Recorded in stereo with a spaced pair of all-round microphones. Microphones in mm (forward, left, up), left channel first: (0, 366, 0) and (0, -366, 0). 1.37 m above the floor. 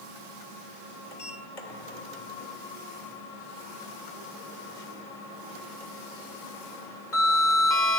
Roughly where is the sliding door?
Left.